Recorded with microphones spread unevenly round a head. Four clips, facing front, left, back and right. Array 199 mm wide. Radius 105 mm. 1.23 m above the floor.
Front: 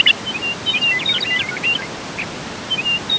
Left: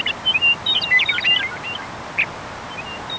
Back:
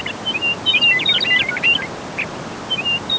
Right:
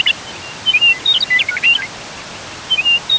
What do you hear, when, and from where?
Only background noise.